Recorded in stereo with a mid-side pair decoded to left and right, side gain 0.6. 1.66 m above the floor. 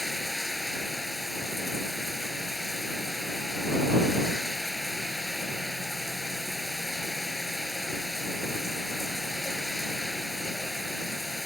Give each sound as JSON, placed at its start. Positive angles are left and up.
{"t": 0.0, "sound": "running water", "azimuth_deg": 5}